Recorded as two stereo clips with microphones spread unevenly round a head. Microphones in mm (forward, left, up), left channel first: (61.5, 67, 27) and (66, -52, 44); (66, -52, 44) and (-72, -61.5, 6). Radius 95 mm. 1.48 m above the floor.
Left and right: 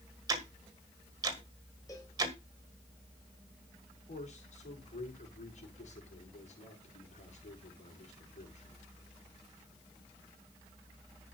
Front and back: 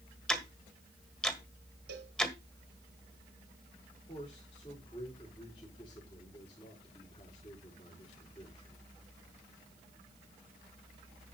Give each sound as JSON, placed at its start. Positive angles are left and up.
{"t": 0.3, "sound": "ticking", "azimuth_deg": -60, "distance_m": 1.5}
{"t": 1.9, "sound": "a cowbell", "azimuth_deg": 170, "distance_m": 1.5}
{"t": 4.1, "sound": "a man speaking", "azimuth_deg": 70, "distance_m": 4.5}